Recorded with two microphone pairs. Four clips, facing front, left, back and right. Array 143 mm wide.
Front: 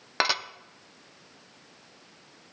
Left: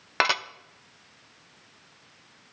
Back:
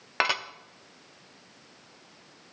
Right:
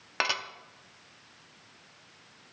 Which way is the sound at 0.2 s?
70° left.